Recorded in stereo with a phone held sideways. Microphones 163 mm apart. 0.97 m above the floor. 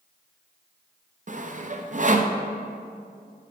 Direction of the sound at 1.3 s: 50° right (ahead or behind).